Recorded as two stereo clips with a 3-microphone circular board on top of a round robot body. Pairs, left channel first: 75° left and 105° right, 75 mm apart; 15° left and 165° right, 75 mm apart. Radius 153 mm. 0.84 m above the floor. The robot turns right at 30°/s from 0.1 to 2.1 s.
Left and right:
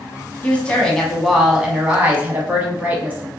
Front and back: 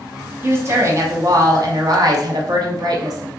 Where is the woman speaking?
140° left, 1.3 m; by 3.3 s 170° right, 1.3 m.